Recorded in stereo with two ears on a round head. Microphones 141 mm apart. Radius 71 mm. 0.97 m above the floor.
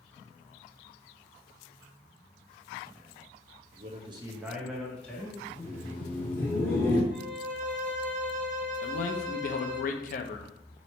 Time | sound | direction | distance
3.7 | a man speaking | 55° right (ahead or behind) | 0.7 m
5.5 | laughter | 15° left (ahead or behind) | 1.3 m
7.1 | a violin | 55° right (ahead or behind) | 0.8 m
8.8 | a man speaking | 55° left (ahead or behind) | 0.5 m